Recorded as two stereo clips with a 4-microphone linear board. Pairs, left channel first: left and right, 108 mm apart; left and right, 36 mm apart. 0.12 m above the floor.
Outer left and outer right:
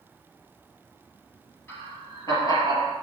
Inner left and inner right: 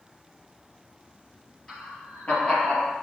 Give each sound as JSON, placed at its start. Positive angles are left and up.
{"t": 1.7, "sound": "laughter", "side_deg": 20, "distance_m": 2.0}